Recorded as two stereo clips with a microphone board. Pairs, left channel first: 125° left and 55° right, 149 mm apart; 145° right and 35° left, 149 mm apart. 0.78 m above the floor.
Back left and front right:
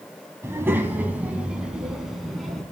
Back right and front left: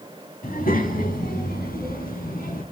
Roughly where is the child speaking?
Behind right.